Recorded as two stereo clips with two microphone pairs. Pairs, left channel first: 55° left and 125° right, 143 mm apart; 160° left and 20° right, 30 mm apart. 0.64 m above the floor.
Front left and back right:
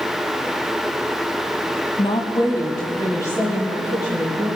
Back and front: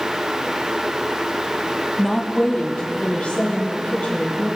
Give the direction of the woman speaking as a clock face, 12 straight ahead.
10 o'clock.